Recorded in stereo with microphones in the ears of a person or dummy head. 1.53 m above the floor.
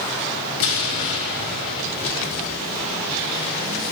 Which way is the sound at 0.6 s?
65° left (ahead or behind).